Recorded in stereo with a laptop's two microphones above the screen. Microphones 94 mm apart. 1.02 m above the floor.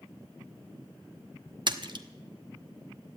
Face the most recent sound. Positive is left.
turn(degrees=-55)  # may be behind; listen again after turning